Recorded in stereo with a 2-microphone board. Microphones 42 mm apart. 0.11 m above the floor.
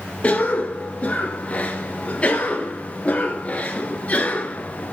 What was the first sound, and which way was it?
A cough, 35° left (ahead or behind).